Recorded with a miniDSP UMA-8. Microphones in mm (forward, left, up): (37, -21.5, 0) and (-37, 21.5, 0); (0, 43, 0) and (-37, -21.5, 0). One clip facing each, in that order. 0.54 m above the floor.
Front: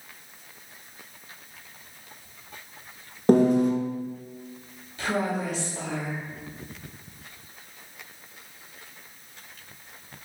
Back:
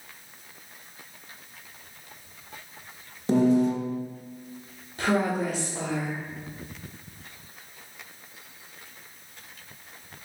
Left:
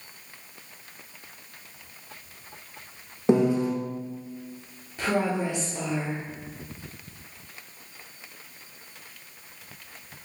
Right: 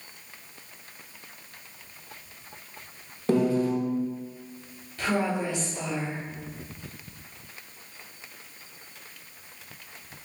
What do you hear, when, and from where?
3.3 s a piano: 5° right, 0.5 m
5.0 s a woman speaking: 125° left, 1.1 m